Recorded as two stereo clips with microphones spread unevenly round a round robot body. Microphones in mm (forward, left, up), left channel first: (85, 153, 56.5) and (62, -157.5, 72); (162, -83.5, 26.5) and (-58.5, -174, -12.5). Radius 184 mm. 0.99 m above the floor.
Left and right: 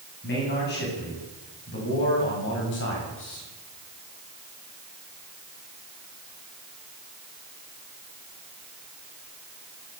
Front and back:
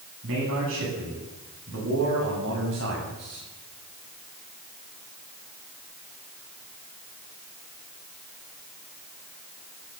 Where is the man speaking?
150° left, 8.5 m; by 3.5 s 140° left, 6.5 m.